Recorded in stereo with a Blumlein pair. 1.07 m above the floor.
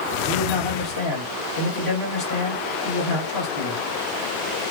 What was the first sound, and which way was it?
A man speaking, 50° left.